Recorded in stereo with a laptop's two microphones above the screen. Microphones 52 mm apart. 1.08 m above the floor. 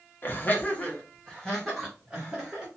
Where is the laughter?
40° left (ahead or behind), 0.8 m; by 2.7 s 5° right (ahead or behind), 1.5 m.